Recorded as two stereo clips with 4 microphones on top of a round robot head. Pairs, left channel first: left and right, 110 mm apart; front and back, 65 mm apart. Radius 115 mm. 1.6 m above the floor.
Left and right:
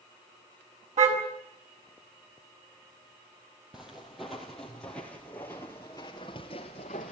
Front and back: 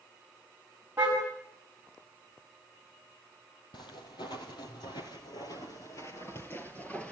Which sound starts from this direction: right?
A car horn, at 1.0 s.